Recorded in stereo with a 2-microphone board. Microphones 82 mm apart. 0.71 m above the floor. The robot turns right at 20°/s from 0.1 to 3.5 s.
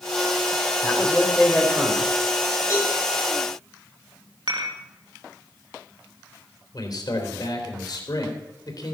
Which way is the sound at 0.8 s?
15° left (ahead or behind).